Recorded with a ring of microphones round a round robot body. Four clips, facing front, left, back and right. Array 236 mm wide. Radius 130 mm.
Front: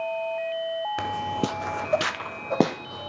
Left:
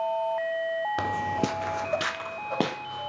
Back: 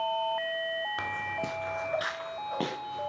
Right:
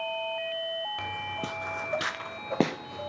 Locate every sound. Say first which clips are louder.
1.0 s footsteps: left 8 dB, front 7 dB; 65° left, 1.0 m; by 3.1 s 30° right, 1.9 m